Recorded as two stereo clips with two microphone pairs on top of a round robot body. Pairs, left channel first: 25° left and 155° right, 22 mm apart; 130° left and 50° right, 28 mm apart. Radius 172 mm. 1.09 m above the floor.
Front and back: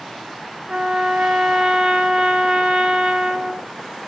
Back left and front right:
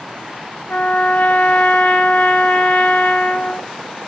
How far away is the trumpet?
About 0.6 m.